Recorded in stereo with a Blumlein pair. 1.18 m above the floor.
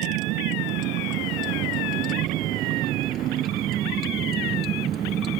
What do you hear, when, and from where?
0.0 s a vehicle: 40° right; by 5.4 s 25° right